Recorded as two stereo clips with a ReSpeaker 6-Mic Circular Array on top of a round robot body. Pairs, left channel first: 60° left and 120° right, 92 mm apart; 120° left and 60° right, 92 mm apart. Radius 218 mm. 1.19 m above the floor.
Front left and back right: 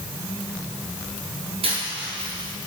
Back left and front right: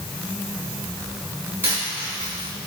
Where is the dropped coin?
125° right, 4.5 m.